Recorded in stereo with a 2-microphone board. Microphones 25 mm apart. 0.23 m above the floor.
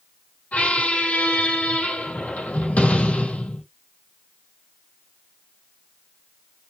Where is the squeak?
80° left, 1.9 m.